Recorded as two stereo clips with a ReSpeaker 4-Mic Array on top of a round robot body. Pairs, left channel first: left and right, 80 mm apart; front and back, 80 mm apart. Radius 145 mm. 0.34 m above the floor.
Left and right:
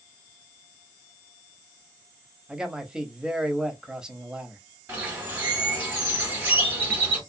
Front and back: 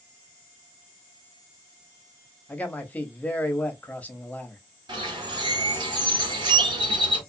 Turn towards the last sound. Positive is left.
turn(degrees=-160)